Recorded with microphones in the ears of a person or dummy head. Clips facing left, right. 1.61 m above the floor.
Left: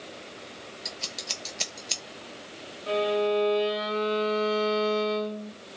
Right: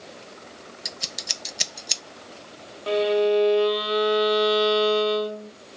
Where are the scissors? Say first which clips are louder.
Even; 20° right (ahead or behind), 0.6 m.